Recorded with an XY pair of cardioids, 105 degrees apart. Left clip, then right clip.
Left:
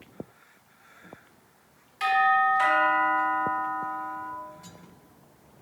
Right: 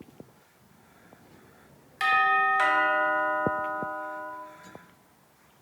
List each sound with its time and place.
2.0 s a doorbell: 45° right, 1.5 m